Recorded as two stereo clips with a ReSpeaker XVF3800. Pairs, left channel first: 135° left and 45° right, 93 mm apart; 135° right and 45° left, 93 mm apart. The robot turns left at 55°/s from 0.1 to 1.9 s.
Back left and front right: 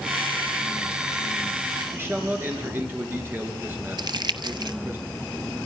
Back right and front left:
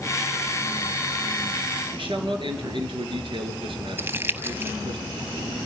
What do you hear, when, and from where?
1.9 s a man speaking: 20° left, 3.5 m
4.0 s crumpling: 20° right, 0.7 m